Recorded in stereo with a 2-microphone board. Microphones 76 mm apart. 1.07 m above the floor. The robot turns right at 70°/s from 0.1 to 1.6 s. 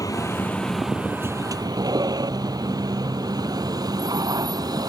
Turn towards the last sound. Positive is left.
turn(degrees=-55)  # may be behind; listen again after turning